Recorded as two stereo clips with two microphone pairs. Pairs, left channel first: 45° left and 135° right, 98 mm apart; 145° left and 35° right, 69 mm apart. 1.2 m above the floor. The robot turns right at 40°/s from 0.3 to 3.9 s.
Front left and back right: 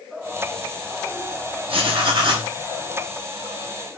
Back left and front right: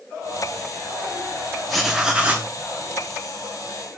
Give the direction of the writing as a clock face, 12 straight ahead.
4 o'clock.